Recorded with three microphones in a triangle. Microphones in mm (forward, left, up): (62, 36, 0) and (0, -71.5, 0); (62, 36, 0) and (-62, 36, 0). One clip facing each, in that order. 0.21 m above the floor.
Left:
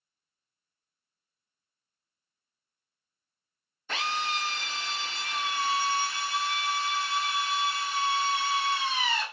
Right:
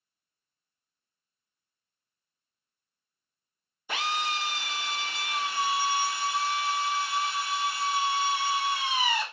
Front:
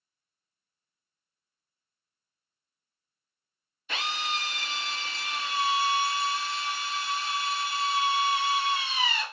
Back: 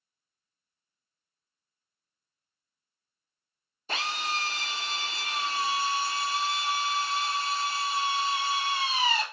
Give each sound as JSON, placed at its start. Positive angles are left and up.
{"t": 3.9, "sound": "a drill", "azimuth_deg": 170, "distance_m": 0.7}